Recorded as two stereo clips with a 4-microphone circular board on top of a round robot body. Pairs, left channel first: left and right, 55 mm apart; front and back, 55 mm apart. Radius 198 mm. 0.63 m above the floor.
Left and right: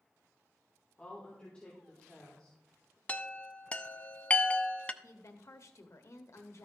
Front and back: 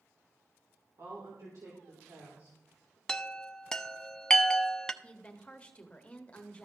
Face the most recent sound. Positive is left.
turn(degrees=65)